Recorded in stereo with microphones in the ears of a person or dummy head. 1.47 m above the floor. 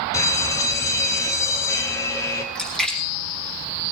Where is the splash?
5° left (ahead or behind), 2.5 m.